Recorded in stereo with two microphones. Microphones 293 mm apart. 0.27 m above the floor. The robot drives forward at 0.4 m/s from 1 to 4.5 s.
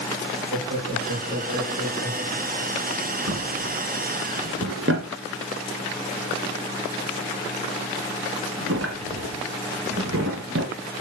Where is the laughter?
45° right (ahead or behind), 4.5 m; by 2.8 s 50° right (ahead or behind), 4.5 m.